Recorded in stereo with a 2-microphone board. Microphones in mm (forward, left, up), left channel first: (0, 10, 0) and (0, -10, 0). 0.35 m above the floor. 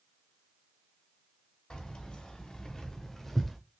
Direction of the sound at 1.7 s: 35° left (ahead or behind).